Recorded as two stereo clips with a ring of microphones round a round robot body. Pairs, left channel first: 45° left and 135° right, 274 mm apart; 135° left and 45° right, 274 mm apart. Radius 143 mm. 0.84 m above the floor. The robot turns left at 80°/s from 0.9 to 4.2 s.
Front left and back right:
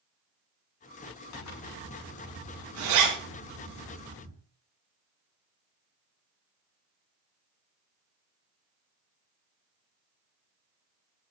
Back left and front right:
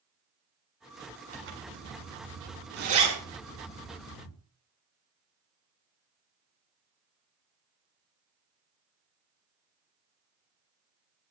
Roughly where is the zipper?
Ahead.